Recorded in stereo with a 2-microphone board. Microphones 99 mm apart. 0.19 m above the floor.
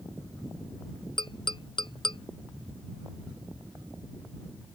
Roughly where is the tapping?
Left.